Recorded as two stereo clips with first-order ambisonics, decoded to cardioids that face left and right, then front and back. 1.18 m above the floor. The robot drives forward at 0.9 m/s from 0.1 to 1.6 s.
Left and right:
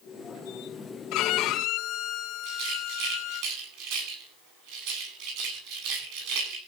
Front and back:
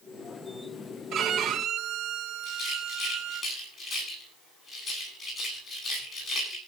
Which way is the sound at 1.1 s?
125° left.